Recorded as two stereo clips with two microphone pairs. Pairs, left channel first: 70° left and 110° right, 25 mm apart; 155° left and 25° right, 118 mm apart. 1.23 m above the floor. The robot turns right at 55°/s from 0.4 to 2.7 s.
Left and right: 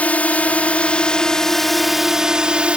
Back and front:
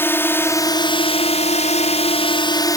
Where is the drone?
85° left; by 2.8 s 150° right.